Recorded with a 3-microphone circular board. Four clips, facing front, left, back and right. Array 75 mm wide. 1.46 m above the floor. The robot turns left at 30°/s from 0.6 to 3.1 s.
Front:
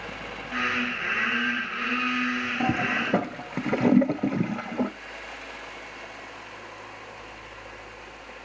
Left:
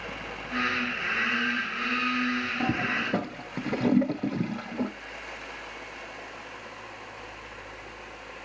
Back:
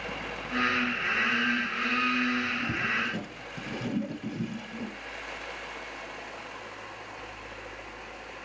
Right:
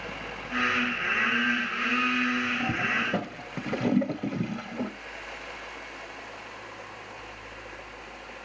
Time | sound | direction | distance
2.6 | a toilet flushing | 20° left | 0.8 m